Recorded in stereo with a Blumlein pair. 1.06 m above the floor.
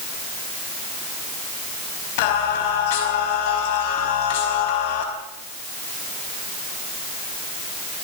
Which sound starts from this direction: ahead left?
Singing, at 2.2 s.